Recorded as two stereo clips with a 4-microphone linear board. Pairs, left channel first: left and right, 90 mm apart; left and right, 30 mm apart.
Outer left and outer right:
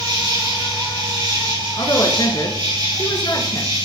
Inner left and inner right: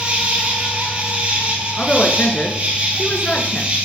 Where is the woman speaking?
50° left (ahead or behind), 3 m.